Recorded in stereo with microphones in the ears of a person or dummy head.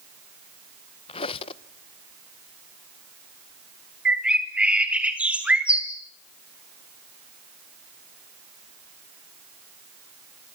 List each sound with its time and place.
1.1 s a squeak: 35° left (ahead or behind), 0.6 m
4.0 s a bird: 5° right (ahead or behind), 1.9 m